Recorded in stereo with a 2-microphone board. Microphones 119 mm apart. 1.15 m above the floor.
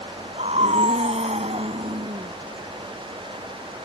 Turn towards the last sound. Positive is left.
turn(degrees=-60)  # may be behind; listen again after turning